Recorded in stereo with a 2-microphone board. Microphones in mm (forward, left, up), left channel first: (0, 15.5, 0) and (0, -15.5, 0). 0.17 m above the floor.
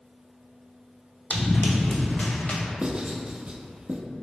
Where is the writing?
35° right (ahead or behind), 0.5 m.